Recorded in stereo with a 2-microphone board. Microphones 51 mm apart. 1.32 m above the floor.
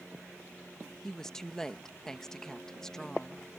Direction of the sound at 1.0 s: 10° left (ahead or behind).